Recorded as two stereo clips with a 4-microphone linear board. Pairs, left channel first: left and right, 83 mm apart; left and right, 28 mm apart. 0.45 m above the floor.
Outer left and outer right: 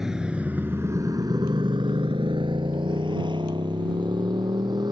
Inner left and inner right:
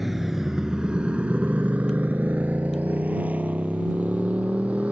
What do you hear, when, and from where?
0.0 s a motorcycle: 5° right (ahead or behind); by 4.9 s 60° right (ahead or behind)